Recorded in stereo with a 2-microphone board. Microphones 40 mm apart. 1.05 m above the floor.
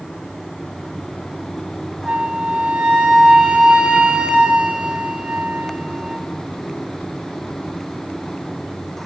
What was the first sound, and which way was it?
A flute, 20° right (ahead or behind).